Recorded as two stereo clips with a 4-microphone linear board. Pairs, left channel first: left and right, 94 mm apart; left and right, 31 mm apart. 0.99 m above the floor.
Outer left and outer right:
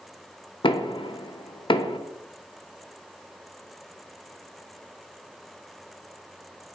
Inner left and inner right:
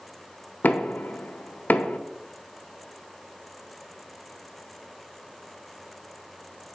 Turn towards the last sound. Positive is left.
turn(degrees=60)  # may be behind; listen again after turning